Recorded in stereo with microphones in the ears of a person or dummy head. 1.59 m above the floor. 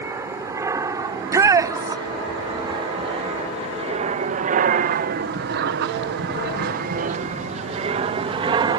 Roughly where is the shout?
Centre.